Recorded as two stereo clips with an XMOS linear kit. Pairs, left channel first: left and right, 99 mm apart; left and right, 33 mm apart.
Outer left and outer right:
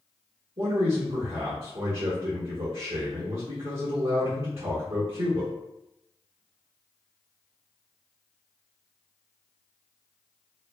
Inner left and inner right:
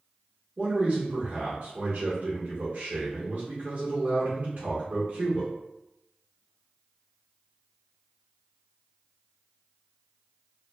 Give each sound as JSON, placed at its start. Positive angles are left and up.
{"t": 0.6, "sound": "a man speaking", "side_deg": -75, "distance_m": 1.2}